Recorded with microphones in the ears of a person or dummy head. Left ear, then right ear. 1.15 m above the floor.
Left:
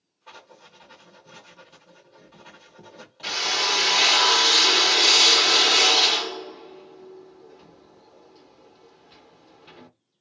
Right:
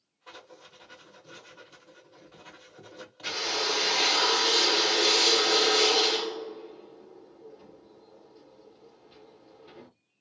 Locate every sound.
0.3 s writing: centre (ahead or behind), 1.1 m
3.2 s a drill: 40° left (ahead or behind), 0.8 m